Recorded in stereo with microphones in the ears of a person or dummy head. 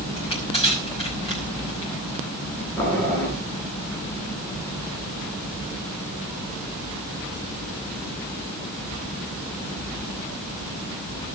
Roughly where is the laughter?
No laughter in this recording.